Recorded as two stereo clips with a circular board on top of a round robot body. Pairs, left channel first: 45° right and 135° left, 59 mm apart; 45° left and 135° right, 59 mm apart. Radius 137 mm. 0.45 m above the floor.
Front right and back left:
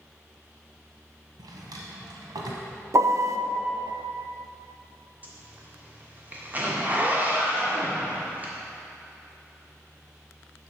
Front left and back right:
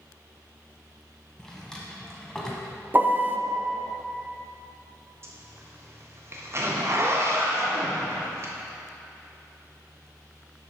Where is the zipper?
170° right, 1.6 m.